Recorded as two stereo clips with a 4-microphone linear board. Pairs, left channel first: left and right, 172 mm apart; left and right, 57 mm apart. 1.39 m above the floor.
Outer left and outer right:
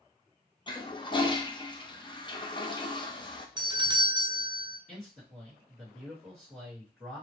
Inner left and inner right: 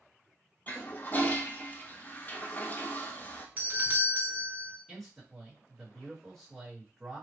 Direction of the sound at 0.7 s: 30° left (ahead or behind).